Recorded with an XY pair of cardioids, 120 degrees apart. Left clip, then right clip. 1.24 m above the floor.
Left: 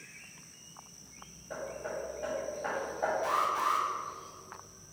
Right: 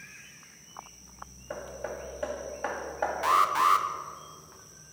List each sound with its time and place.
1.5 s hammering: 65° right, 2 m
3.2 s an alarm: 65° right, 0.7 m